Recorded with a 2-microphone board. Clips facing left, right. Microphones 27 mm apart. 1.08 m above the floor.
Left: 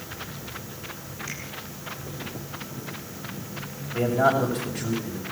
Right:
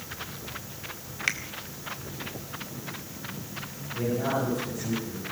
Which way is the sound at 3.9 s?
65° left (ahead or behind).